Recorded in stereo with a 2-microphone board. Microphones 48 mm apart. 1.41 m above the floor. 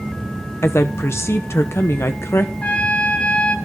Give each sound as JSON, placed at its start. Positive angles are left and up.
{"t": 0.6, "sound": "a woman speaking", "side_deg": 70, "distance_m": 1.1}
{"t": 2.6, "sound": "a trumpet", "side_deg": 30, "distance_m": 2.5}